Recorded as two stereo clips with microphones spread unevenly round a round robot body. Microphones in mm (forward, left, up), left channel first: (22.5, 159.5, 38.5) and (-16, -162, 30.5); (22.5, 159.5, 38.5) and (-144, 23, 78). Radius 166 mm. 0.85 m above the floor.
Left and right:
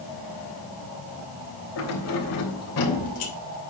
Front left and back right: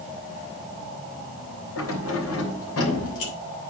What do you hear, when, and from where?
1.8 s keys jangling: 40° left, 3.5 m; by 3.3 s 35° left, 3 m